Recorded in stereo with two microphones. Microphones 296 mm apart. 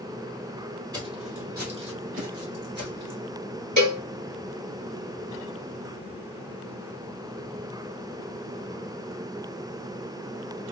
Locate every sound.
0.9 s footsteps: 10° right (ahead or behind), 1.7 m; by 3.2 s 55° right (ahead or behind), 3 m
3.8 s a cowbell: 60° right (ahead or behind), 3 m